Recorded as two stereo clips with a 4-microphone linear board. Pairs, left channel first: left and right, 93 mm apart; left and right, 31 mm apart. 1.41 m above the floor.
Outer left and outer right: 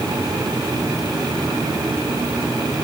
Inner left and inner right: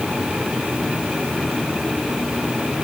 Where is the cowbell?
I don't hear a cowbell.